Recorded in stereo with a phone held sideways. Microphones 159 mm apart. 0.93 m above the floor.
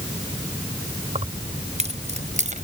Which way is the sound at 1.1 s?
40° right (ahead or behind).